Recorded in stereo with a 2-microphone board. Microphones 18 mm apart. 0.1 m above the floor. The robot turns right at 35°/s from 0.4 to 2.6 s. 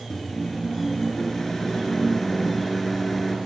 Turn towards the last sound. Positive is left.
turn(degrees=10)  # may be behind; listen again after turning